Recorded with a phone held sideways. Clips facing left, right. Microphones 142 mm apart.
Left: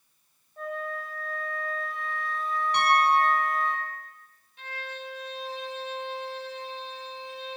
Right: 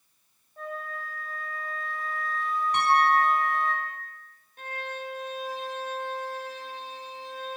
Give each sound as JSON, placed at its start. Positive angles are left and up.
{"t": 0.6, "sound": "a flute", "side_deg": 0, "distance_m": 1.1}
{"t": 2.7, "sound": "a piano", "side_deg": -40, "distance_m": 1.7}
{"t": 4.6, "sound": "a violin", "side_deg": -45, "distance_m": 0.6}